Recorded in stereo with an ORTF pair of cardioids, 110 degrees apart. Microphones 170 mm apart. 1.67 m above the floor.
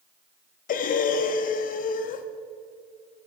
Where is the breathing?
55° left, 1.0 m.